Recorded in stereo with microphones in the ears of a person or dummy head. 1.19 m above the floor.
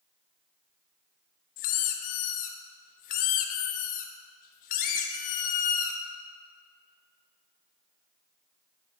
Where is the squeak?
45° left (ahead or behind), 0.7 m.